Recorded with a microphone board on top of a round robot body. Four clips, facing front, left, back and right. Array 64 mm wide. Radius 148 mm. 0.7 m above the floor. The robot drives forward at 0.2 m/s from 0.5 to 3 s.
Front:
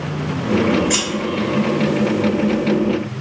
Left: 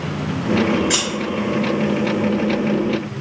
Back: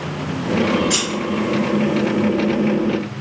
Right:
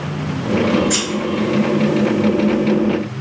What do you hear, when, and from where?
0.9 s scissors: 60° left, 1.0 m; by 1.1 s 65° left, 1.0 m